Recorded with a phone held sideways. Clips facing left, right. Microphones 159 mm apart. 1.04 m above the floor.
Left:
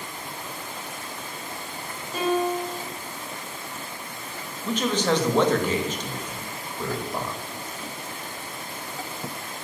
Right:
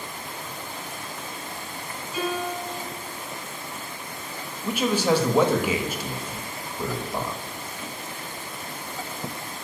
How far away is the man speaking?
About 1.5 m.